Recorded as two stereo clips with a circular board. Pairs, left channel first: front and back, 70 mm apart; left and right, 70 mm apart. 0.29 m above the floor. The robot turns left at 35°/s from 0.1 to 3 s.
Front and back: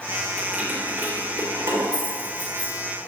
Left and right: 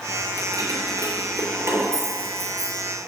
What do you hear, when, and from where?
0.4 s keys jangling: 105° right, 3.5 m; by 2.7 s 175° left, 3.5 m